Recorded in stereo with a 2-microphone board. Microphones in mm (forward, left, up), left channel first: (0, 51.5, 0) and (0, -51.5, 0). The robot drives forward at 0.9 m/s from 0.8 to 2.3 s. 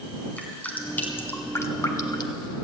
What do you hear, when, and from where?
0.4 s dripping: 20° left (ahead or behind), 1.6 m; by 2.5 s 45° left (ahead or behind), 0.7 m